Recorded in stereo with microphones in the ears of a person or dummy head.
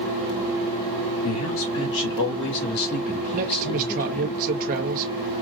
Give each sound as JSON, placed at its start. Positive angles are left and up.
{"t": 1.2, "sound": "a man speaking", "side_deg": 80, "distance_m": 2.0}
{"t": 3.3, "sound": "a man speaking", "side_deg": -45, "distance_m": 1.1}